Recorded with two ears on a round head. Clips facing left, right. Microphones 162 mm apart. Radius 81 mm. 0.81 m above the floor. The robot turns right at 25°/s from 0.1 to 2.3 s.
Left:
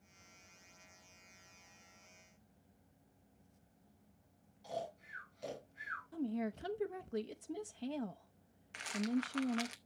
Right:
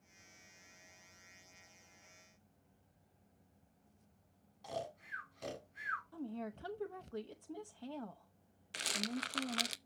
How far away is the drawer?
No drawer in this recording.